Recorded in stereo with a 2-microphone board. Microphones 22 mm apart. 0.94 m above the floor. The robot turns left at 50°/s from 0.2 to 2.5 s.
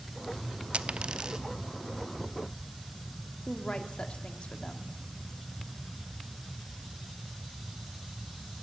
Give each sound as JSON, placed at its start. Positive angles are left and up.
{"t": 0.7, "sound": "a dropped coin", "side_deg": -70, "distance_m": 0.7}
{"t": 3.5, "sound": "a woman speaking", "side_deg": 60, "distance_m": 2.0}